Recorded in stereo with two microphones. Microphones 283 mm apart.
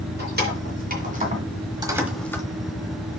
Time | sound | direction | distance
0.2 | keys jangling | 35° right (ahead or behind) | 3 m